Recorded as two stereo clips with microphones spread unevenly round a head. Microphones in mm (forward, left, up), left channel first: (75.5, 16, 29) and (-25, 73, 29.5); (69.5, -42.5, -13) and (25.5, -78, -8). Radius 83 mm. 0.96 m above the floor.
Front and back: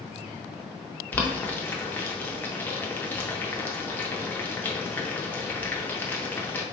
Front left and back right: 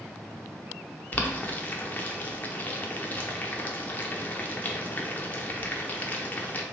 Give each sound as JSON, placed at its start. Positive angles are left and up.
{"t": 1.1, "sound": "boiling", "azimuth_deg": 25, "distance_m": 0.5}